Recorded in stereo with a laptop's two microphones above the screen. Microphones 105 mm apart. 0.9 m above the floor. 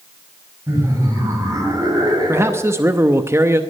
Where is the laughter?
30° right (ahead or behind), 5.5 m; by 2.9 s 45° right (ahead or behind), 6.5 m.